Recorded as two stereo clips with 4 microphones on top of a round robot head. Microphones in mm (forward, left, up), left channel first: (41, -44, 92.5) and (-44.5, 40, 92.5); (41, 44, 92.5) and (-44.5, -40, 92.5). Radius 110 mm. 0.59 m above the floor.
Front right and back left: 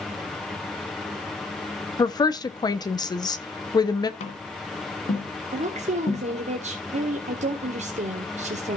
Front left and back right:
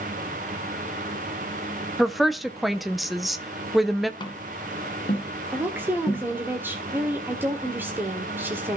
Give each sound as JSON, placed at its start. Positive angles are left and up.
{"t": 2.0, "sound": "a woman speaking", "azimuth_deg": -45, "distance_m": 1.2}
{"t": 4.2, "sound": "tapping", "azimuth_deg": -10, "distance_m": 1.6}
{"t": 5.5, "sound": "a woman speaking", "azimuth_deg": 155, "distance_m": 1.7}